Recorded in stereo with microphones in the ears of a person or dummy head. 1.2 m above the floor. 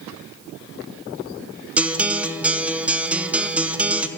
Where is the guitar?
5° right (ahead or behind), 0.6 m.